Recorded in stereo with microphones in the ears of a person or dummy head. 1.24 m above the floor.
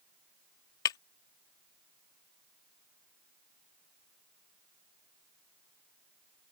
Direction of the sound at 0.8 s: 20° left (ahead or behind).